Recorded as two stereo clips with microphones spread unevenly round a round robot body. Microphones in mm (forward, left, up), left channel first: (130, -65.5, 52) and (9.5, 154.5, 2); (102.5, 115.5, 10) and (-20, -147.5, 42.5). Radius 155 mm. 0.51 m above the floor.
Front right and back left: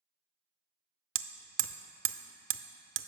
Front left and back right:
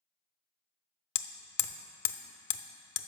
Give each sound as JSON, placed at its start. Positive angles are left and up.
{"t": 1.1, "sound": "hammering", "azimuth_deg": 85, "distance_m": 0.5}